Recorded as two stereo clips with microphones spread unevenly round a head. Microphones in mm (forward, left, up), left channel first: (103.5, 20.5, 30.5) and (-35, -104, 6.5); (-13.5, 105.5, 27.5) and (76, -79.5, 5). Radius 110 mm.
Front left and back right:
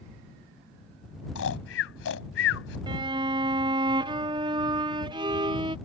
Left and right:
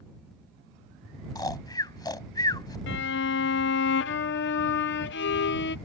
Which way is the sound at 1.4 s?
45° left.